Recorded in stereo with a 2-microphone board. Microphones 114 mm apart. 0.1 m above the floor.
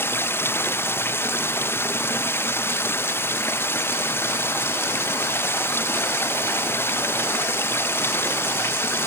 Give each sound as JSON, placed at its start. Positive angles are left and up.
{"t": 0.0, "sound": "running water", "side_deg": 20}